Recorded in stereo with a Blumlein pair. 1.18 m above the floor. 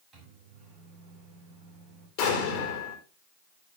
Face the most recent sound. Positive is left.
turn(degrees=40)